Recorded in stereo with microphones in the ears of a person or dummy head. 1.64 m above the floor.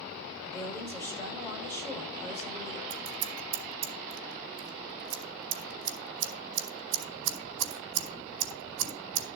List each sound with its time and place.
0.4 s a woman speaking: 10° left (ahead or behind), 6.5 m
2.9 s scissors: 70° right (ahead or behind), 4 m